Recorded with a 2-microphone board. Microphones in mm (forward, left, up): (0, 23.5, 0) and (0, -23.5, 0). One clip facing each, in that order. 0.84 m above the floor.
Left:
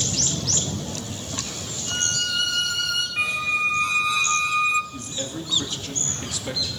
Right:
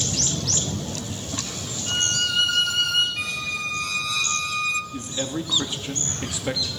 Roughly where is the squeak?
Left.